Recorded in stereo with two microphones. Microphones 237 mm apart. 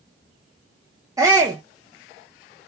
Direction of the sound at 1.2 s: 15° right (ahead or behind).